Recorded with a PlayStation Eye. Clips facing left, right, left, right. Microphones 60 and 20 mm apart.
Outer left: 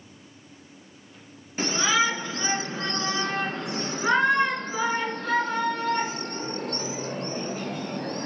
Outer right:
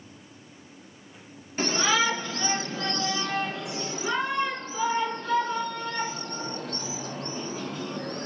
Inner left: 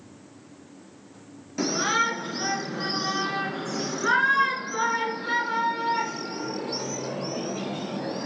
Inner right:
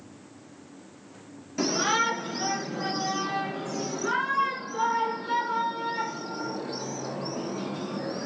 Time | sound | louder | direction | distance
1.6 | a shout | outer left 1 dB, inner left 1 dB | 10° left (ahead or behind) | 3 m